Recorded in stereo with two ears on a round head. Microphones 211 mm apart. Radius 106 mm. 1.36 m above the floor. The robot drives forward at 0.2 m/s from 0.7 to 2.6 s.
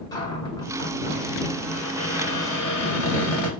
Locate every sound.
0.1 s a cupboard door: 15° left (ahead or behind), 1.5 m; by 3.5 s 10° left (ahead or behind), 1.8 m